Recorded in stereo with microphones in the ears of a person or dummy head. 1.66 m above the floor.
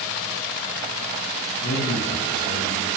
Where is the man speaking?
55° left (ahead or behind), 0.9 m.